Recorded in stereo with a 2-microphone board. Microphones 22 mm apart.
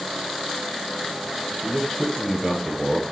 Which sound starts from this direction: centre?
A man speaking, at 1.6 s.